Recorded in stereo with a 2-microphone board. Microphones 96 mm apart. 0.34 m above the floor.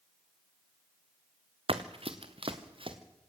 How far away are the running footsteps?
About 1.7 m.